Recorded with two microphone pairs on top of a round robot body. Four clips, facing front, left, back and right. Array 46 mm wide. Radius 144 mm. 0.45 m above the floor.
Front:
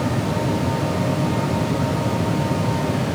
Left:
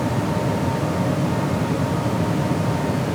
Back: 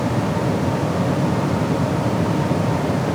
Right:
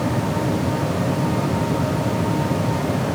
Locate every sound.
Only background noise.